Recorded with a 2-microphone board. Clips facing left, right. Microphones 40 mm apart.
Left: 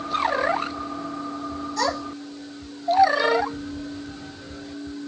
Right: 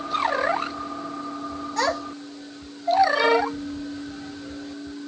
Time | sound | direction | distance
1.8 | a child speaking | 65° right (ahead or behind) | 2 m
3.1 | a violin | 50° right (ahead or behind) | 2.5 m